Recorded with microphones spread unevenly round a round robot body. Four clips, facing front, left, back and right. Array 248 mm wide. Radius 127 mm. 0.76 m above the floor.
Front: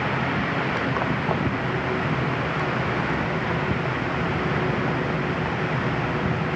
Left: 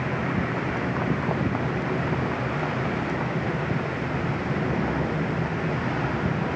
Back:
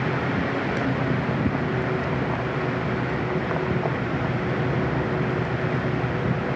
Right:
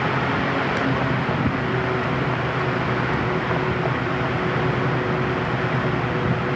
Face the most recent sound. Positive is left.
No sound to turn to.